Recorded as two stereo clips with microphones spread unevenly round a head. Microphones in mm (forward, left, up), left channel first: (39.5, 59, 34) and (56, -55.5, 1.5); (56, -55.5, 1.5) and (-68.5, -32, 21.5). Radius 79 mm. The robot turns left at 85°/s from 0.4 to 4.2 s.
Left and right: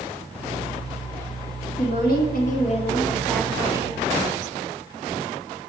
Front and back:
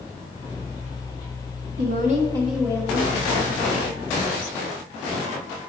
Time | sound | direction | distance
1.8 | a woman speaking | 145° left | 1.8 m